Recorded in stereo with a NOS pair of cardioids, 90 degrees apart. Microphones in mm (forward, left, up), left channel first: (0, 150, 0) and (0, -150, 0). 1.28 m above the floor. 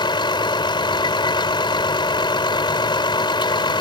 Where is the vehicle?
15° left.